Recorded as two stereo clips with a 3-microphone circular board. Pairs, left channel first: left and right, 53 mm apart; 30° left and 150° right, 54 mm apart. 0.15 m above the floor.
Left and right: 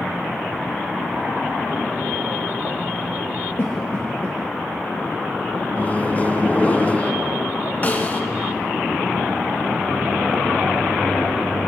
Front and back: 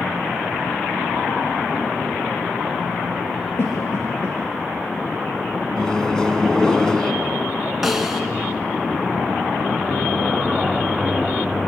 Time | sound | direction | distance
3.6 | a cough | 50° left | 2.5 m
5.8 | a microwave | 90° left | 1.3 m
7.8 | a snare drum | 125° left | 1.8 m